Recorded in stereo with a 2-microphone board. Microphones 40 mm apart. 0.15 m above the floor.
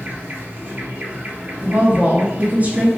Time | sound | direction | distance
0.0 | an insect | 35° right (ahead or behind) | 1.5 m
1.6 | a woman speaking | 40° right (ahead or behind) | 1.9 m